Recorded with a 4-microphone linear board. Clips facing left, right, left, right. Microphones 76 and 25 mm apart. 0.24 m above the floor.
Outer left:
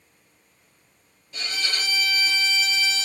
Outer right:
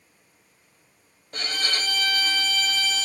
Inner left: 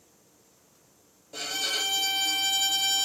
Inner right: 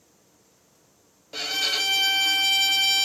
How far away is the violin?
About 0.6 m.